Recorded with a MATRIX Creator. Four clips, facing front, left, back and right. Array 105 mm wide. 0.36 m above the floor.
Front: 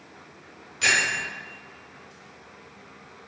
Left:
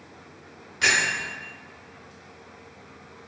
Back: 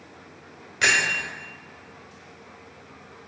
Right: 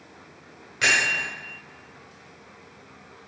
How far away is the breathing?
I don't hear breathing.